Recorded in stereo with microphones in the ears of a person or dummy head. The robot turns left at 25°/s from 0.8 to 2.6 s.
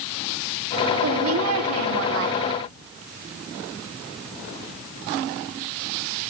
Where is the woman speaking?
75° right, 3.5 m; by 2.5 s 110° right, 3.5 m.